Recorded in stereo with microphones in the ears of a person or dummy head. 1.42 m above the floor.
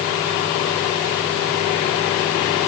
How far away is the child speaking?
I don't hear a child speaking.